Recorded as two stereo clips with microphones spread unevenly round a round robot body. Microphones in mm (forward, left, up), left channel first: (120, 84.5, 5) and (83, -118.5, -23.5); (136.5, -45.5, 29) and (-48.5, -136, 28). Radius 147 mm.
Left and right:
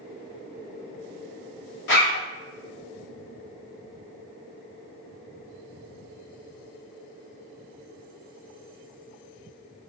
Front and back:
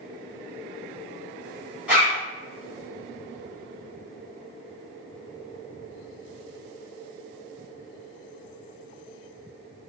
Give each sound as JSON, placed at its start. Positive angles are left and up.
{"t": 1.9, "sound": "a zipper", "azimuth_deg": 120, "distance_m": 0.7}